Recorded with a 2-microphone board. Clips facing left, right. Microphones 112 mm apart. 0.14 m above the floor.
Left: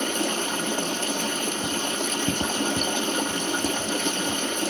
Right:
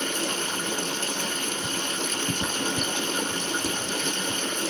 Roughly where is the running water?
Left.